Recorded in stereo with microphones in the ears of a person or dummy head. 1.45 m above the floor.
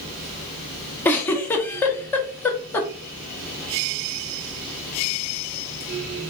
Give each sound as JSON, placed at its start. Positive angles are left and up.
{"t": 0.0, "sound": "a fan", "side_deg": -50, "distance_m": 2.5}
{"t": 1.1, "sound": "a giggle", "side_deg": 10, "distance_m": 0.7}